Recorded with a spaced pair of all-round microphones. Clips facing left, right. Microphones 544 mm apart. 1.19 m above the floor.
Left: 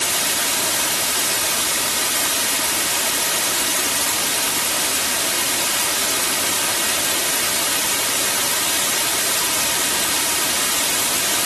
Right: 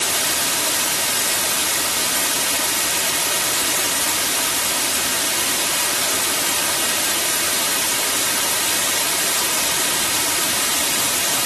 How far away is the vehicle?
No vehicle in this recording.